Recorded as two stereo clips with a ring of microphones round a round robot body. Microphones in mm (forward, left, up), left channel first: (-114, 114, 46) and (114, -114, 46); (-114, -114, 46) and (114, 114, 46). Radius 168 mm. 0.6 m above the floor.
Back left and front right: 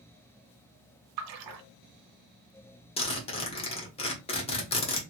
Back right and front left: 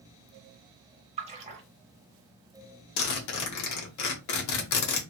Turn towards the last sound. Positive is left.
turn(degrees=-155)